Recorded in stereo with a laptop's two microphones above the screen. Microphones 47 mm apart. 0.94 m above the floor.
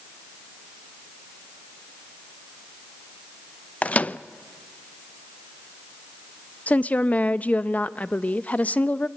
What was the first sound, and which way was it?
A microwave, 30° left (ahead or behind).